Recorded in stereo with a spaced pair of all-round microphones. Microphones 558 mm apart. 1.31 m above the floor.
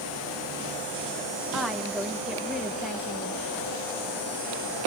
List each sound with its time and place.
1.5 s a woman speaking: centre (ahead or behind), 1.5 m